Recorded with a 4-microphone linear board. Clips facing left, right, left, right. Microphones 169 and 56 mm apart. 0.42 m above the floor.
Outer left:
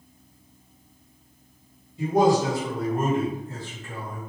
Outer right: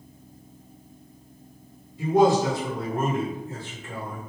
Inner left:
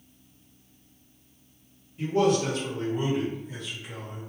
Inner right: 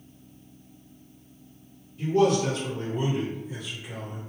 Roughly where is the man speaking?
Left.